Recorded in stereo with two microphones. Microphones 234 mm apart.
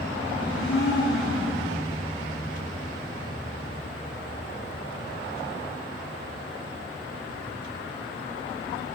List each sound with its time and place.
0.4 s a blender: 55° left (ahead or behind), 7.5 m